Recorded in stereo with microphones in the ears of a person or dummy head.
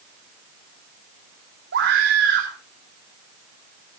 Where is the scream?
60° right (ahead or behind), 3.5 m.